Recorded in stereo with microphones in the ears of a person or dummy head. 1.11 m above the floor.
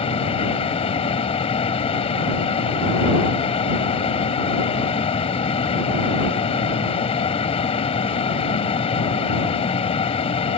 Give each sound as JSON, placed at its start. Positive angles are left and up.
{"t": 0.0, "sound": "a fan", "side_deg": 35}